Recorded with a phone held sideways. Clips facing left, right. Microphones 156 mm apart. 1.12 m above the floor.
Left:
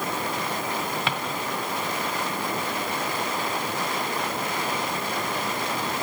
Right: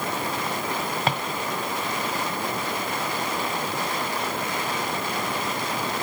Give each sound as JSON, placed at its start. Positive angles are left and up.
{"t": 1.1, "sound": "a drawer", "side_deg": -40, "distance_m": 1.9}